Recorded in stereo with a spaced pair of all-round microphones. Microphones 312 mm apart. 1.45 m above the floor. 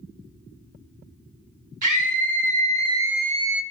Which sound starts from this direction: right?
A scream, at 1.8 s.